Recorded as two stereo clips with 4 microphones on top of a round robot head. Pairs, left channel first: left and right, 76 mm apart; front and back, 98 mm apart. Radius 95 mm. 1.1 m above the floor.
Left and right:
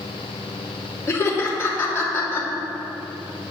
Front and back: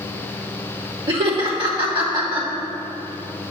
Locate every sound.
1.1 s laughter: 145° left, 3 m